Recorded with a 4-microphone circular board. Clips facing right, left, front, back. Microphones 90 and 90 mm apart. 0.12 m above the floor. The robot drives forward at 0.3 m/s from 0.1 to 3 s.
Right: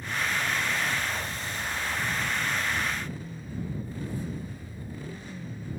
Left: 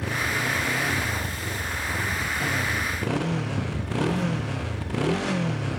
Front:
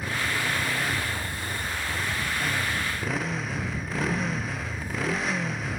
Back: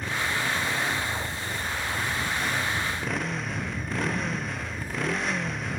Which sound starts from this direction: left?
A motorcycle, at 0.0 s.